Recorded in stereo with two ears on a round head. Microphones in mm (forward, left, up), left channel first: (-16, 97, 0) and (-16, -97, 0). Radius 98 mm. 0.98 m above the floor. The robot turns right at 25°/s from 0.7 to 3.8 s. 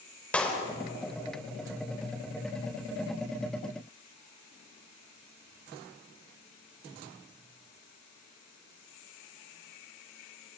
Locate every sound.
0.3 s a clap: 5° left (ahead or behind), 4 m